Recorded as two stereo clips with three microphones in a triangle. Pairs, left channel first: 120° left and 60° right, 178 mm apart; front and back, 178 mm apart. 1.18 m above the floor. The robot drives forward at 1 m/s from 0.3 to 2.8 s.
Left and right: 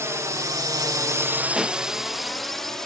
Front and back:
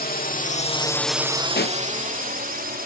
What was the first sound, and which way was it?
A drone, 10° left.